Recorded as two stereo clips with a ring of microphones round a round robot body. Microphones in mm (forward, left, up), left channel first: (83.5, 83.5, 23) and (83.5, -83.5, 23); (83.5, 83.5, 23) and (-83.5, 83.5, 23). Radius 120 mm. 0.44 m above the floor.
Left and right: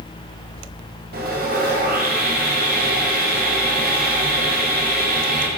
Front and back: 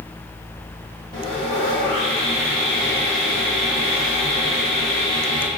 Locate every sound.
1.1 s sawing: 75° right, 2.5 m